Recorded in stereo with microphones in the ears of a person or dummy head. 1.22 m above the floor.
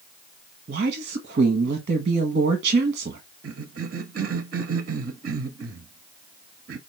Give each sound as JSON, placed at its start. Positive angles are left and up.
{"t": 0.7, "sound": "a woman speaking", "side_deg": -40, "distance_m": 1.1}
{"t": 3.4, "sound": "a cough", "side_deg": -40, "distance_m": 0.6}